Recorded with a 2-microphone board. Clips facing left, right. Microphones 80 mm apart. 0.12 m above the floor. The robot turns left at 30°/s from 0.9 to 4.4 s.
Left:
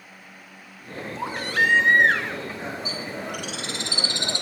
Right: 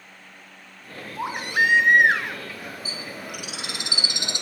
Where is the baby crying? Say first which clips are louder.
Right 1 dB; 20° right (ahead or behind), 0.7 m; by 2.4 s 5° right (ahead or behind), 0.7 m.